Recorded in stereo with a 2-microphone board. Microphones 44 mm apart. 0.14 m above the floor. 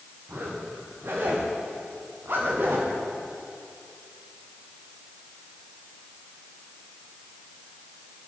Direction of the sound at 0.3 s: 55° right (ahead or behind).